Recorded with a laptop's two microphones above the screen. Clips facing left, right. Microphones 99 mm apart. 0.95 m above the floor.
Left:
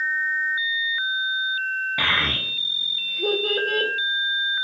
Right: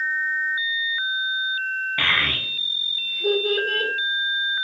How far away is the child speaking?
About 0.6 m.